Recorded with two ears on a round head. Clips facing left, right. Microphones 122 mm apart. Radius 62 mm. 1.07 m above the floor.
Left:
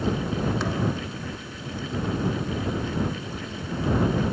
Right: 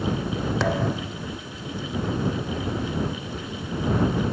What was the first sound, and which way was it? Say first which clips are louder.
A thud: right 2 dB; 55° right (ahead or behind).